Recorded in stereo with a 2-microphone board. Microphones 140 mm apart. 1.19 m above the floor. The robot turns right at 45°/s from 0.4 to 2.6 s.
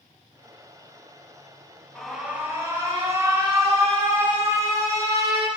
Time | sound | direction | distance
1.9 | an alarm | 5° left (ahead or behind) | 2.5 m